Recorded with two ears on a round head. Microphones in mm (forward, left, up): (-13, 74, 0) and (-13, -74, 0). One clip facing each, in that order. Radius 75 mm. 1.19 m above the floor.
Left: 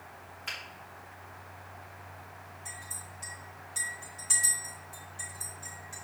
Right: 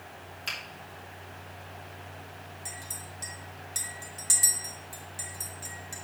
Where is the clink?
60° right (ahead or behind), 2.5 m.